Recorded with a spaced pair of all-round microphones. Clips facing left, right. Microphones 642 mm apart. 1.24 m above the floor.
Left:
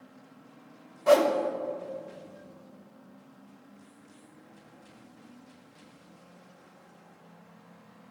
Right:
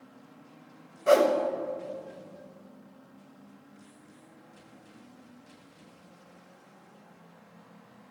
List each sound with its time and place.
1.1 s a whoosh: 25° left (ahead or behind), 0.6 m